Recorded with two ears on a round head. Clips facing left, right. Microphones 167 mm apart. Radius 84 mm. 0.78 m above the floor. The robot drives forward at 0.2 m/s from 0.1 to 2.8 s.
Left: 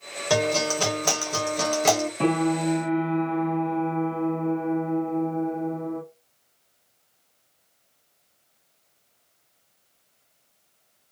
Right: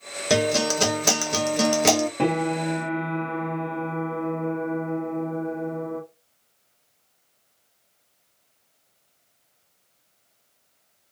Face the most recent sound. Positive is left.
turn(degrees=-65)  # may be behind; listen again after turning